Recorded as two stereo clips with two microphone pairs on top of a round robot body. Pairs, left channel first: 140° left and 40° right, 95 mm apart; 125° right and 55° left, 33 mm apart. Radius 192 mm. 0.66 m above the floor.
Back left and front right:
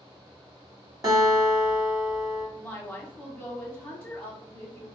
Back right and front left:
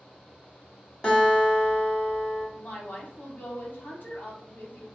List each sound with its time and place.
1.0 s a guitar: 65° right, 1.5 m
2.6 s a woman speaking: 135° right, 1.2 m